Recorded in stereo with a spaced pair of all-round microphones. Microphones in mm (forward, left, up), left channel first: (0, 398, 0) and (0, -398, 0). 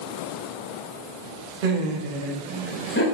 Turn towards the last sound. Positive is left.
turn(degrees=20)  # may be behind; listen again after turning